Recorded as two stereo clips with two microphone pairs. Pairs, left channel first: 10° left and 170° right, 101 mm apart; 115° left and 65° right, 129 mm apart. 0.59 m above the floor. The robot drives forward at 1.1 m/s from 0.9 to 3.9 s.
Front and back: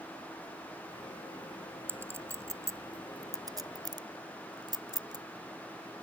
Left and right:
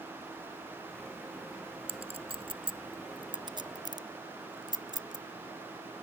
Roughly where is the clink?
Right.